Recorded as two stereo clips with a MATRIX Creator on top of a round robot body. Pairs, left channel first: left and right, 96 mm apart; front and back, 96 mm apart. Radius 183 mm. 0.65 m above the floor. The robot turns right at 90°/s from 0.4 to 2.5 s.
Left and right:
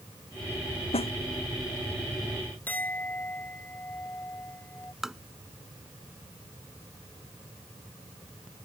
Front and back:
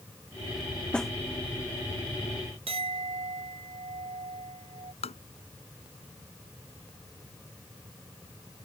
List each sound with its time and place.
0.9 s a snare drum: 80° left; by 1.1 s 95° left
2.7 s a clink: 165° left
5.0 s tapping: 5° right